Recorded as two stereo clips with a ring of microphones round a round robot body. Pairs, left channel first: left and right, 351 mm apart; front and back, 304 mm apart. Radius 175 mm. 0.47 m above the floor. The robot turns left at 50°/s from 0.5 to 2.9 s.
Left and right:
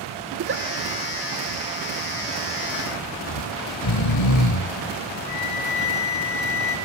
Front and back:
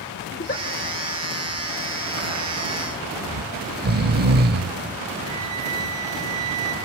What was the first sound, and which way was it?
A giggle, 50° right.